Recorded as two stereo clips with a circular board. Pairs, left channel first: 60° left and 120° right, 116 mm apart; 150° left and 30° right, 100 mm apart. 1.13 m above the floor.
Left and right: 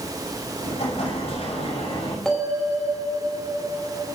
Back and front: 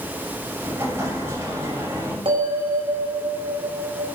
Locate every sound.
0.6 s an explosion: 35° left, 6 m
2.2 s a bell: 30° right, 5 m